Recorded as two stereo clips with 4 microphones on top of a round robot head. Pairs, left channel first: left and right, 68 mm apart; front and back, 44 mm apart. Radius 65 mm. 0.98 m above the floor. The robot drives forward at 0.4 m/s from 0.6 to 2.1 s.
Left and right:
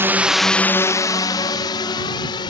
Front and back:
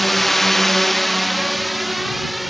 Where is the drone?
90° right; by 2.5 s 85° left.